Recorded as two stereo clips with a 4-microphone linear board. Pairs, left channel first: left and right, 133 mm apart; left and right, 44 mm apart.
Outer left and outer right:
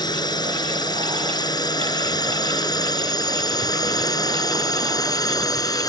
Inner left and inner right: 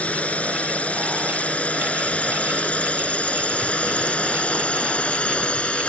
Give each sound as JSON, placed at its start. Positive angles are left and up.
{"t": 0.0, "sound": "a drone", "side_deg": 35}